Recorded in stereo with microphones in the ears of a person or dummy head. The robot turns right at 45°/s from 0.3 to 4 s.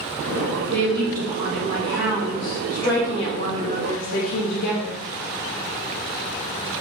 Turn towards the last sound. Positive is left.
turn(degrees=75)